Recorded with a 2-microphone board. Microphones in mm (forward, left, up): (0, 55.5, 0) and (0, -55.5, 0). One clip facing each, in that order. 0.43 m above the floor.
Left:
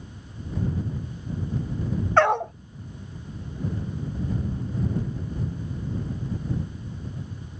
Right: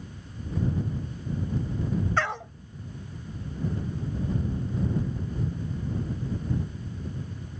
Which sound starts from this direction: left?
A dog barking, at 2.2 s.